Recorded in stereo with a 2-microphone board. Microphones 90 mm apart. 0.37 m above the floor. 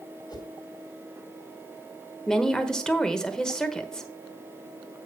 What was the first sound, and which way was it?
A whoosh, 50° left (ahead or behind).